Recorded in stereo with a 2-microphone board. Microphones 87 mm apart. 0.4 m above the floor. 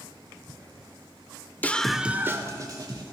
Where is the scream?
20° left (ahead or behind), 0.9 m; by 3.0 s 55° right (ahead or behind), 1.7 m.